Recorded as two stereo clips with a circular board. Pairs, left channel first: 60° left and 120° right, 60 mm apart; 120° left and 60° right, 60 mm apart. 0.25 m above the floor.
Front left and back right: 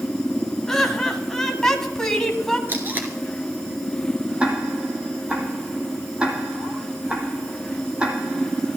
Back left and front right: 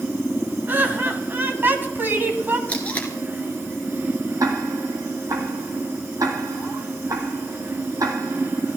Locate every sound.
0.7 s laughter: 20° right, 2 m
2.7 s tape being pulled: 175° right, 3 m
4.4 s ticking: 45° right, 2.5 m